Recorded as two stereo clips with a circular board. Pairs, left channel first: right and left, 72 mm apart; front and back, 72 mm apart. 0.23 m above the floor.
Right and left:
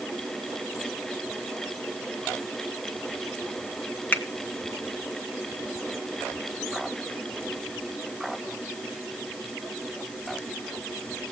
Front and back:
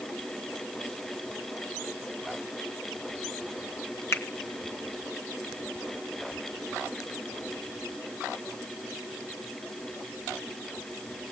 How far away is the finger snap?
About 1.6 m.